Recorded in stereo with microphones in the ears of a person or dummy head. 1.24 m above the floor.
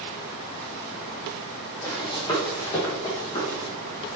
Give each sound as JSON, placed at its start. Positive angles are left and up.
{"t": 1.8, "sound": "running footsteps", "side_deg": 20, "distance_m": 2.5}